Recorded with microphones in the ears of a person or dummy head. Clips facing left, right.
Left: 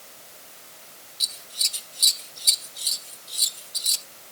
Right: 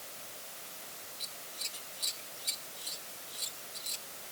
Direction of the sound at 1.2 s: 55° left (ahead or behind).